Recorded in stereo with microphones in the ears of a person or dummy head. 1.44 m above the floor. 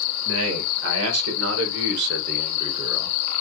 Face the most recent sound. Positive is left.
turn(degrees=0)  # may be behind; listen again after turning